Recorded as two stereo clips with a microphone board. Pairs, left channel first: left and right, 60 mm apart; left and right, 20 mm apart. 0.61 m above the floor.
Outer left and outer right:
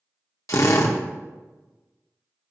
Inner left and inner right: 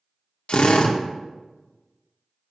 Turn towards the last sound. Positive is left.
turn(degrees=60)  # may be behind; listen again after turning